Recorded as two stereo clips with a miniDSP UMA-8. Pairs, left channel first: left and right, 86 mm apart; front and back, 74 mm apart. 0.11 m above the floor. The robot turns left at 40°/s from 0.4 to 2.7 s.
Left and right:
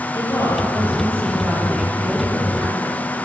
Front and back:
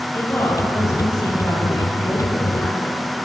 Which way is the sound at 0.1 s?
50° left.